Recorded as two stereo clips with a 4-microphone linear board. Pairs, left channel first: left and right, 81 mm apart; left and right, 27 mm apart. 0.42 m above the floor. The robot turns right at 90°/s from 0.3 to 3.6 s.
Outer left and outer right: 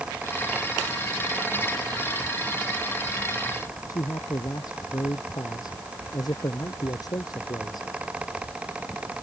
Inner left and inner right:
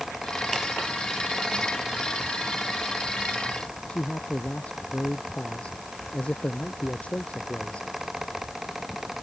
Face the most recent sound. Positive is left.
turn(degrees=50)  # may be behind; listen again after turning